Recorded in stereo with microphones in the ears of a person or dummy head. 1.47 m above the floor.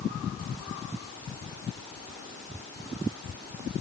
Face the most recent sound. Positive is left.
No sound to turn to.